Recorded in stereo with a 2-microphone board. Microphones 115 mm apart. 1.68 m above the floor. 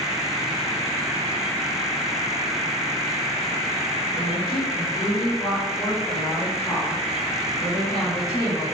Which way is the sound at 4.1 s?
45° left (ahead or behind).